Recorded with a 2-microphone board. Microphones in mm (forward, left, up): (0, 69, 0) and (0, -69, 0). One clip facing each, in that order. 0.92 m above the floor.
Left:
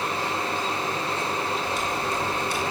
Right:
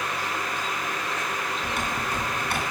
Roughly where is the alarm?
No alarm in this recording.